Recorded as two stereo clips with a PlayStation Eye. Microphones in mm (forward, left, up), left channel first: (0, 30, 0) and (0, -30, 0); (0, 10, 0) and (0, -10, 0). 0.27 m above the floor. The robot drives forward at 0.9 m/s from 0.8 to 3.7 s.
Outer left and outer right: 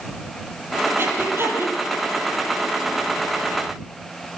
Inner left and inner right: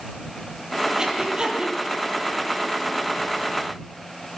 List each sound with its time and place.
1.0 s breathing: 35° right (ahead or behind), 7 m; by 1.8 s 40° right (ahead or behind), 6.5 m